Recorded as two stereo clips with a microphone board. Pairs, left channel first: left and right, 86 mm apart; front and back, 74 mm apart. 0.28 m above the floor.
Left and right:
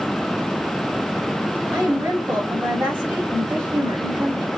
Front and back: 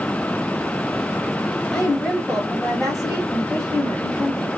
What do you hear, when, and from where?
1.7 s a woman speaking: 70° right, 1.2 m